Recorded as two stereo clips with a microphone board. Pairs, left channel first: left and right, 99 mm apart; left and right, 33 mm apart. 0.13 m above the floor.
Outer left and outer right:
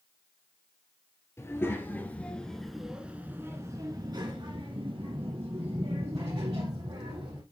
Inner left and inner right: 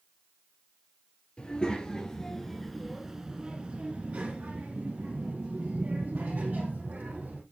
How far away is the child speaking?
About 1.9 m.